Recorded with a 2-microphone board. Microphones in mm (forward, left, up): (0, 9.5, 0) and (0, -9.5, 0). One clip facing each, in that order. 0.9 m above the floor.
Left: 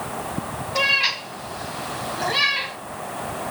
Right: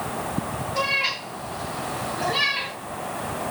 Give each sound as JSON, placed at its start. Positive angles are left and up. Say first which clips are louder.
{"t": 0.8, "sound": "a cat meowing", "louder": "left 4 dB", "side_deg": 50, "distance_m": 3.5}